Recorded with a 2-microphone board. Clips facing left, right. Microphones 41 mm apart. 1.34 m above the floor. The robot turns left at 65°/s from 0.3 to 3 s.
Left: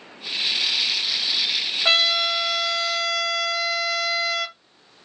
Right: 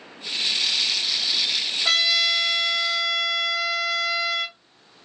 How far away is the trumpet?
About 1.9 m.